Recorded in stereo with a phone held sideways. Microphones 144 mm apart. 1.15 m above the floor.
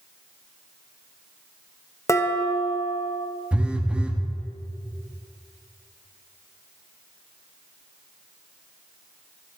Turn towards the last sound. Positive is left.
turn(degrees=-10)  # may be behind; listen again after turning